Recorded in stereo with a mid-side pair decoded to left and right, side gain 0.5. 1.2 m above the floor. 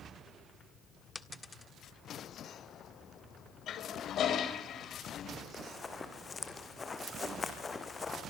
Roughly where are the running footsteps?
Ahead left.